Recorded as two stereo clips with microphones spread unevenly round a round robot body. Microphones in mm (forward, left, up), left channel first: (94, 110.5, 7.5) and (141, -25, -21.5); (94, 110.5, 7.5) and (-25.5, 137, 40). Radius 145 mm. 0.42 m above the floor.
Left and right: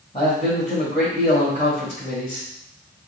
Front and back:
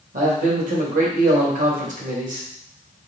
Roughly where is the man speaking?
Behind.